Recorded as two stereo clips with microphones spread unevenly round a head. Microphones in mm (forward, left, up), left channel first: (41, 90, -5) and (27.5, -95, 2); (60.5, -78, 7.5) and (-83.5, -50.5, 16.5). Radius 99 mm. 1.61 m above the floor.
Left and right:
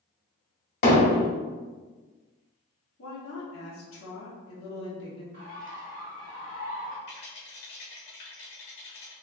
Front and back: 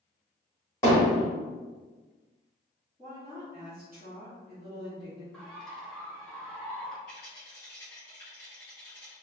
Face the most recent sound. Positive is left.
turn(degrees=60)